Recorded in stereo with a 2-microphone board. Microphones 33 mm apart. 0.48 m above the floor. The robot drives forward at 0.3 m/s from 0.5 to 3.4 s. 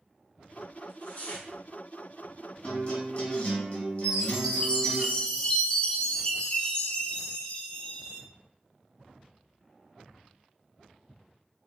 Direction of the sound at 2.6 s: 40° left (ahead or behind).